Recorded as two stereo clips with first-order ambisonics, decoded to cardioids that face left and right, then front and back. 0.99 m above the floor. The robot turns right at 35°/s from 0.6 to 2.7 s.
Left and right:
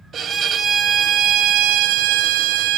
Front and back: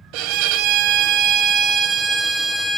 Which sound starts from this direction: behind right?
A violin, at 0.1 s.